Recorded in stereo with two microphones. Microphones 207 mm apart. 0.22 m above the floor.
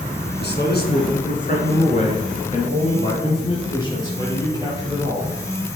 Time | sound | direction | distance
0.4 | a man speaking | 60° left (ahead or behind) | 2.5 m